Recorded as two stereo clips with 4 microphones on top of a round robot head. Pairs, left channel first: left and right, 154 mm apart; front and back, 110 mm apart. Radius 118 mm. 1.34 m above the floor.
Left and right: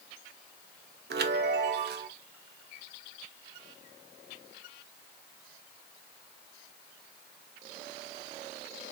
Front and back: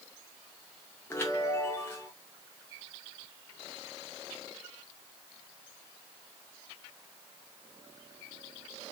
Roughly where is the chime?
Right.